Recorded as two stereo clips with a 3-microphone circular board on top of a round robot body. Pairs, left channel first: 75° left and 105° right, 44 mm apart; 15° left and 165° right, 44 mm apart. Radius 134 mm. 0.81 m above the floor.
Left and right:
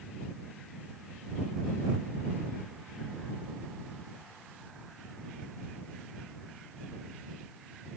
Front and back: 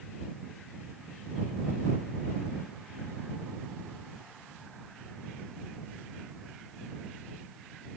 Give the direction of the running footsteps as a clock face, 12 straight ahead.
No running footsteps in this recording.